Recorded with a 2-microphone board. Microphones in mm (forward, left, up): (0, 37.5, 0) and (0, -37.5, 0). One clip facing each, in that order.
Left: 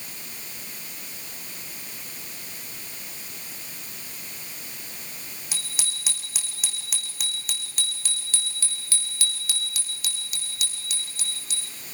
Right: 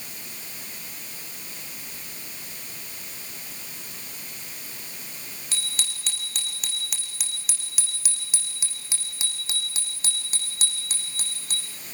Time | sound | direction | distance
5.5 | a bicycle bell | 15° left (ahead or behind) | 6 m